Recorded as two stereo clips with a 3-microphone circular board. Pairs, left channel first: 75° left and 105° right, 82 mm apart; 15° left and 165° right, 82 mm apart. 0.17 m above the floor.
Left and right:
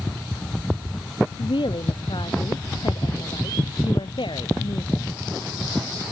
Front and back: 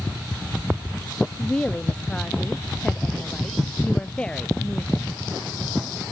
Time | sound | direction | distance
1.4 | a woman speaking | 95° left | ?